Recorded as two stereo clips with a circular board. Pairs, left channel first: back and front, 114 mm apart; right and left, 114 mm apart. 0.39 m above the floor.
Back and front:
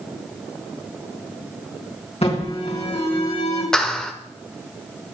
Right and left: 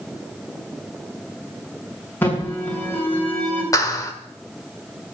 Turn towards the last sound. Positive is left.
turn(degrees=-100)